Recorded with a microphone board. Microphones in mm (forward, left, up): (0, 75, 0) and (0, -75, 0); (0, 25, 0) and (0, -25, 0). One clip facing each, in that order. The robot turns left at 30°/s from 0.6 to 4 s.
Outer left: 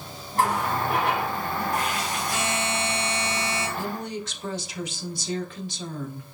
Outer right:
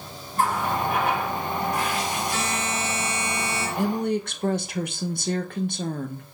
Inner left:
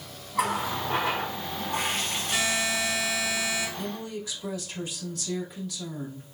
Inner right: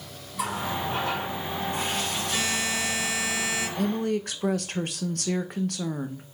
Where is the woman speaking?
60° right (ahead or behind), 0.5 m; by 6.2 s 55° right (ahead or behind), 0.5 m.